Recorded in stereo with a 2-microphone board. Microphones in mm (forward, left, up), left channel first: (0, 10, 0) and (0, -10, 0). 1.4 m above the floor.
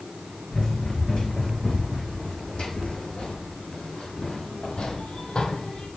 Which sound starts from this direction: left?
Running footsteps, at 0.5 s.